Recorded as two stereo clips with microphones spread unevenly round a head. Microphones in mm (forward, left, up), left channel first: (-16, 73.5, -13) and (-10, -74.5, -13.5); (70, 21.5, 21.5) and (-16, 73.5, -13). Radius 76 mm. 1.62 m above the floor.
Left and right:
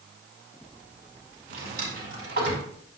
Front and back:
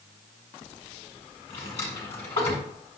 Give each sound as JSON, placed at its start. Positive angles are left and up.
{"t": 1.5, "sound": "a drawer", "azimuth_deg": -65, "distance_m": 5.5}